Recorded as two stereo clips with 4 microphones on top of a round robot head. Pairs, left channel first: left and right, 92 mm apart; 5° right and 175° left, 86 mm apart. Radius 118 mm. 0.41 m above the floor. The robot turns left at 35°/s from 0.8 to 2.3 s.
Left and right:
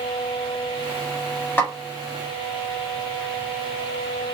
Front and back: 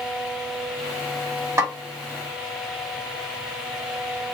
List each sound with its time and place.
1.6 s a snare drum: 145° left, 1.7 m; by 1.7 s 140° left, 1.7 m